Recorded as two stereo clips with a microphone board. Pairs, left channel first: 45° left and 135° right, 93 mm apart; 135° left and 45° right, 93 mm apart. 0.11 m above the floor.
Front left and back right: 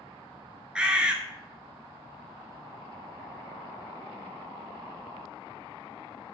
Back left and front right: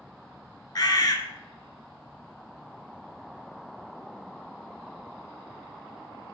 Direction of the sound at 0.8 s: 150° left.